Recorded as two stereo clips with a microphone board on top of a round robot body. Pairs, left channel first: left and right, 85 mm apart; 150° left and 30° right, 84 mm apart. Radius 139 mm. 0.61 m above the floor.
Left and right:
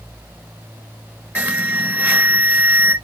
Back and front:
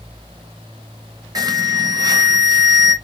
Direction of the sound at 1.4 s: 25° right.